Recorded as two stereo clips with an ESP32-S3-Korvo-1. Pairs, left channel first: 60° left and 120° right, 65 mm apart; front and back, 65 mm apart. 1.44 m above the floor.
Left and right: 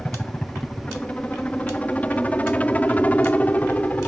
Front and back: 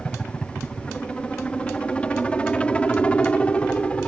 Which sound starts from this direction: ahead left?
A helicopter, at 0.0 s.